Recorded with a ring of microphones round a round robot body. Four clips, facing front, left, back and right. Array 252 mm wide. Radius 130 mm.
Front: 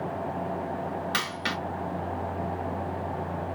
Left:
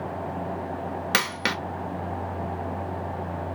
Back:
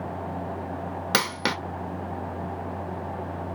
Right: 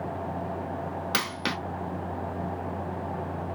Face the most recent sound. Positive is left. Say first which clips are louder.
# left 5 dB, back 5 dB
turn(degrees=160)